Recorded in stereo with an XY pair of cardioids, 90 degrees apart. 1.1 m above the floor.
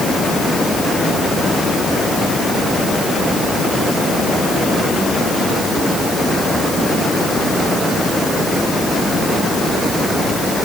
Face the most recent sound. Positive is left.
No sound to turn to.